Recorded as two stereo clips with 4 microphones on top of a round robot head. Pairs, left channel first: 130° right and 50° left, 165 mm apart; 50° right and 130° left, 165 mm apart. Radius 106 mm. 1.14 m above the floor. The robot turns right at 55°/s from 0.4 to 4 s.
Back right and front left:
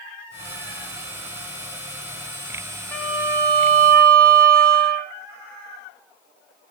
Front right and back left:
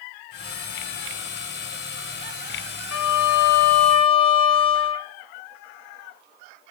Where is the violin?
50° right, 0.6 m; by 5.1 s 10° left, 0.6 m.